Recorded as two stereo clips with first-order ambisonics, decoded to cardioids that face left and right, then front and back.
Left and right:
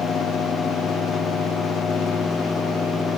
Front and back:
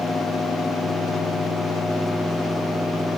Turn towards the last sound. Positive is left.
No sound to turn to.